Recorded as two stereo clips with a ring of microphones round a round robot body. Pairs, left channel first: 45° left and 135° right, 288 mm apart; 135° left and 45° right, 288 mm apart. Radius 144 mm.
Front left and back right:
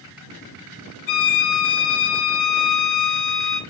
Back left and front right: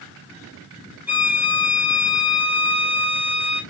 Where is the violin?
40° left, 2 m.